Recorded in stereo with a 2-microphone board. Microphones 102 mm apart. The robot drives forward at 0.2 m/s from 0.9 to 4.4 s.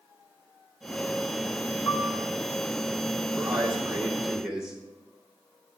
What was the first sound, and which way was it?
A piano, 65° left (ahead or behind).